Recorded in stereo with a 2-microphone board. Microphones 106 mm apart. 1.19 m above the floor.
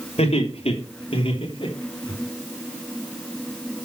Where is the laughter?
80° left, 3.5 m; by 2.1 s 45° left (ahead or behind), 4 m.